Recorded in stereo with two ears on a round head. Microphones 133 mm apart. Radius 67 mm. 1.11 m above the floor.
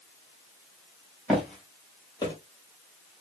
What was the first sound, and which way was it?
Footsteps, 5° right (ahead or behind).